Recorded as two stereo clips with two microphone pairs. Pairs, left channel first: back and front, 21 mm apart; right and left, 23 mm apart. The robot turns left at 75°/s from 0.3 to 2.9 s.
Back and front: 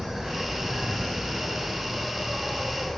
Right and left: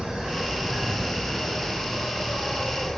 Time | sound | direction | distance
0.0 | an insect | 65° left | 2.5 m